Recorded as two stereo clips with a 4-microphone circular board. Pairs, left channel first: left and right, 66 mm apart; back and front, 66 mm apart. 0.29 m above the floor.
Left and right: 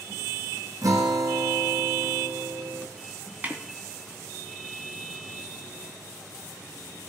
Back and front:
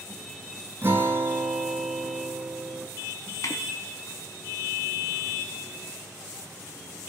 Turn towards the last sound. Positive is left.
turn(degrees=-155)